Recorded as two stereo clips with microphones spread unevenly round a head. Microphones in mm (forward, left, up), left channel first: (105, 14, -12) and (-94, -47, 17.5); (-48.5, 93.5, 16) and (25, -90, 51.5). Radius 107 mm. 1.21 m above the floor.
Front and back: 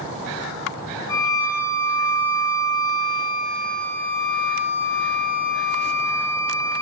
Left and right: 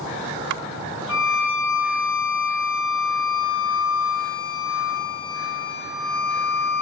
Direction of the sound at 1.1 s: 95° left.